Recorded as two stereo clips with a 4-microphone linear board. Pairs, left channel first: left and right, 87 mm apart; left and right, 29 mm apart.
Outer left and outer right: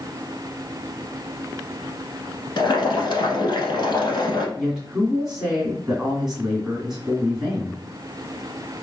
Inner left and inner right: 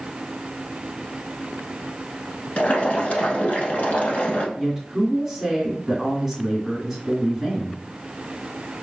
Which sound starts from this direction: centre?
A woman speaking, at 4.6 s.